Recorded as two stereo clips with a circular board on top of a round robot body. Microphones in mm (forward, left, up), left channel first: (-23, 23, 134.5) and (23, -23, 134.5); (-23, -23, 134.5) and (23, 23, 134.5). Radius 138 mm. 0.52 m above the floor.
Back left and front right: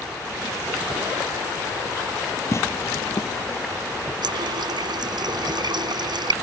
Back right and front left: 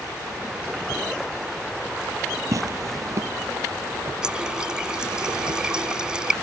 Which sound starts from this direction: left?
Tearing paper, at 2.5 s.